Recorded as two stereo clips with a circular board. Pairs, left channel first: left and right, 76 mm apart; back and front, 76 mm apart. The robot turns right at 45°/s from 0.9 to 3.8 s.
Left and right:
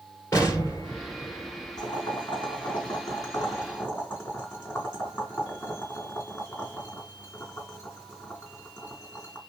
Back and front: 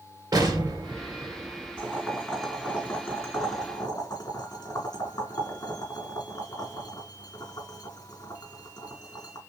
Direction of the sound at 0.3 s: 40° left.